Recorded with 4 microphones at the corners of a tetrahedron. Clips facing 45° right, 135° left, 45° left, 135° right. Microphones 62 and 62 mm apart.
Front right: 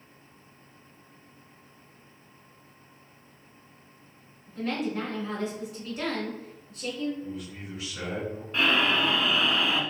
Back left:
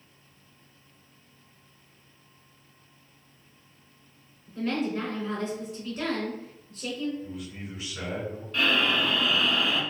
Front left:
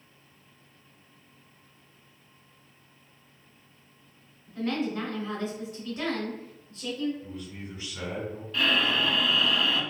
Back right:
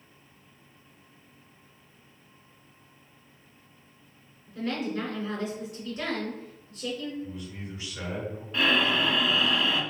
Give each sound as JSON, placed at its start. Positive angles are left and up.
{"t": 4.5, "sound": "a woman speaking", "azimuth_deg": 35, "distance_m": 1.6}
{"t": 7.2, "sound": "a man speaking", "azimuth_deg": 50, "distance_m": 2.0}
{"t": 8.5, "sound": "breathing", "azimuth_deg": -85, "distance_m": 0.5}